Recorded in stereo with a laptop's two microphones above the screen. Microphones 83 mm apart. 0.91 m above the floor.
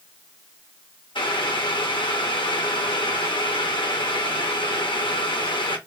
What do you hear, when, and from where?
1.1 s boiling: 75° left (ahead or behind), 0.9 m